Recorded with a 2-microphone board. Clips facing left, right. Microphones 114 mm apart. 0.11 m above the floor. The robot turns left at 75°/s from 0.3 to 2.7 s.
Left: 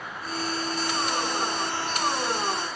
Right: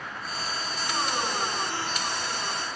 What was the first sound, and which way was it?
Only background noise.